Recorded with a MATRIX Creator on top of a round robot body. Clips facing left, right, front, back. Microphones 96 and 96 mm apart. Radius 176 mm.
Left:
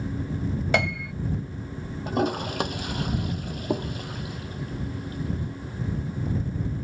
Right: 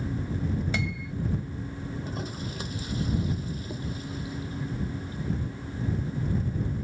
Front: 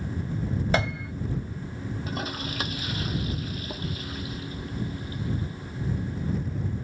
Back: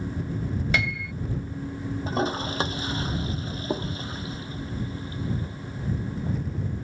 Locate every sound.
0.7 s a piano: 60° left
2.1 s a toilet flushing: 120° left